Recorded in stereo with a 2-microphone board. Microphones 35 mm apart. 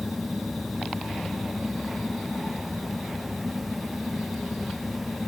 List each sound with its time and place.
Only background noise.